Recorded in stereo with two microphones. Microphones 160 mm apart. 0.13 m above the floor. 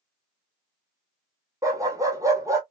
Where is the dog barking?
20° right (ahead or behind), 1.2 m.